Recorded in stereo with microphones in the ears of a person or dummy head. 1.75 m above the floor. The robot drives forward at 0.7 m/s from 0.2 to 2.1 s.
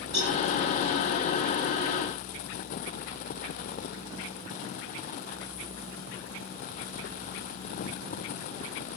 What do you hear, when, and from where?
0.1 s a cowbell: 65° right (ahead or behind), 9.5 m